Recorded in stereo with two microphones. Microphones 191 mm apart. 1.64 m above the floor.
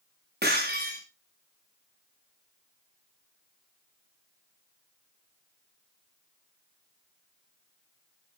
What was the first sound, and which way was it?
Breaking glass, 60° right (ahead or behind).